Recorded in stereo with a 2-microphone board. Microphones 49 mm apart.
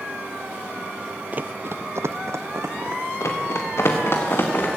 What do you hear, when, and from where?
1.3 s running footsteps: 35° right (ahead or behind), 0.5 m; by 3.1 s 75° right (ahead or behind), 2 m
3.2 s running footsteps: 75° left (ahead or behind), 3.5 m; by 4.7 s 50° left (ahead or behind), 4.5 m